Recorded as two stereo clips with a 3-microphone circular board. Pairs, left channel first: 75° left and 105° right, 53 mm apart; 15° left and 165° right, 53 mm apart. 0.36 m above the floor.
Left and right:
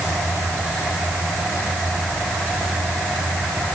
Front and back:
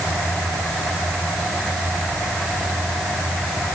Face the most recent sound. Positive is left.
No sound to turn to.